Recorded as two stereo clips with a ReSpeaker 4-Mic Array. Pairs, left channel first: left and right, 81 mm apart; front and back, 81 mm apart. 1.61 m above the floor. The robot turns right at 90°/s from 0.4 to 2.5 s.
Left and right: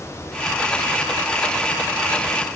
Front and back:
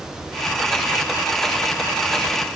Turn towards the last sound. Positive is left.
No sound to turn to.